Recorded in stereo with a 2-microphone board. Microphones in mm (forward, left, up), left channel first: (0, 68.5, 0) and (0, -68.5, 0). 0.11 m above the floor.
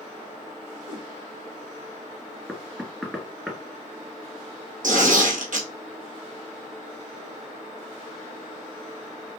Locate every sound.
0.9 s a whoosh: 70° right (ahead or behind), 1.0 m
2.5 s knocking: 5° right (ahead or behind), 1.7 m
4.8 s tearing paper: 70° right (ahead or behind), 2 m